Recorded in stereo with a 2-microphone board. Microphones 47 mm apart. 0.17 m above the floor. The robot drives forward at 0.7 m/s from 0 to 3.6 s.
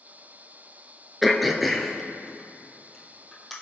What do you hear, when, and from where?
1.2 s throat clearing: centre (ahead or behind), 1.0 m